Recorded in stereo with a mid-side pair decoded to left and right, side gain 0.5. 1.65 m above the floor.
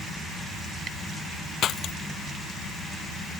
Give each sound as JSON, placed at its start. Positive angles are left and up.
{"t": 1.6, "sound": "breaking glass", "azimuth_deg": 60}